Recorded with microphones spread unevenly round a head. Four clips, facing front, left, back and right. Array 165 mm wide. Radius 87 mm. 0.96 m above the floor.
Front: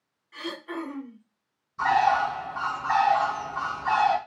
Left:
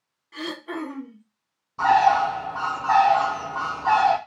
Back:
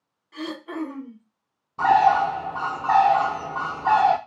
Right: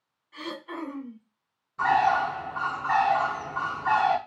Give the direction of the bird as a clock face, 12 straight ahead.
7 o'clock.